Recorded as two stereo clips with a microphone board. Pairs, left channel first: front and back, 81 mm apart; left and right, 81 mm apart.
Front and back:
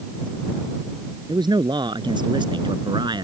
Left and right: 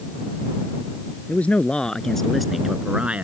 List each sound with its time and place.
1.3 s a man speaking: 160° left; by 3.2 s 160° right